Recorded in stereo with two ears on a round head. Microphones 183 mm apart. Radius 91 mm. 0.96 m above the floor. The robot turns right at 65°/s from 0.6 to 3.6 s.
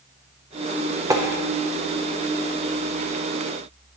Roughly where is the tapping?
Centre.